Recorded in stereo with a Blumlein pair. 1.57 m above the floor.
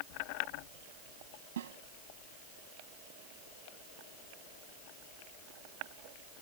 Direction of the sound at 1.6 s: 60° right.